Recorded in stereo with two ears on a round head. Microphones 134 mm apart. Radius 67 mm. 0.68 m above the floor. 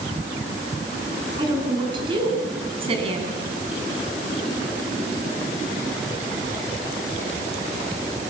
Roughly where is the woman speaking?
Right.